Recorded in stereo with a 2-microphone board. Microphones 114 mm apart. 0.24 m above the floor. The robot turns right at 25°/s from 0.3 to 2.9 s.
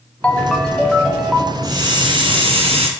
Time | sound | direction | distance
0.2 | a ringtone | 165° left | 0.6 m
1.6 | a hiss | 140° right | 1.3 m